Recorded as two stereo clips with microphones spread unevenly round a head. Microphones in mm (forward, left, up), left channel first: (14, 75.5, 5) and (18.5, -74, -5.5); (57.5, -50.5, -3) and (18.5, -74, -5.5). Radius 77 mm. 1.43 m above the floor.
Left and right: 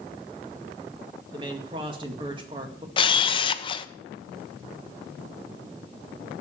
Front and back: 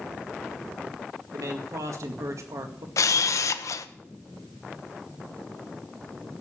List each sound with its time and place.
1.3 s a man speaking: 150° right, 1.9 m
3.0 s a camera shutter: 35° left, 0.8 m